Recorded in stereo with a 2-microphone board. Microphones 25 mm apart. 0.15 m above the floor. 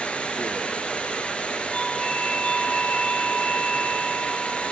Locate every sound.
0.0 s running water: 55° left (ahead or behind), 1.0 m
1.7 s a doorbell: 50° left (ahead or behind), 2 m